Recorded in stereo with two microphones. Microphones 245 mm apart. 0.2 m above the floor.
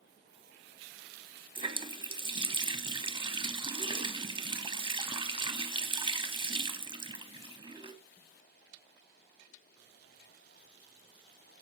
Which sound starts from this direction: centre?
A running tap, at 1.6 s.